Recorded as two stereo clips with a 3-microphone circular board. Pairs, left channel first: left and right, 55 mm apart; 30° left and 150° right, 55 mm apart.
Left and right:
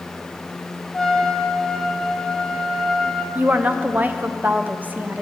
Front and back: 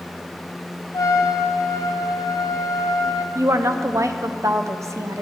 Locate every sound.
0.9 s a trumpet: 10° left, 0.6 m
3.4 s a woman speaking: 145° right, 0.6 m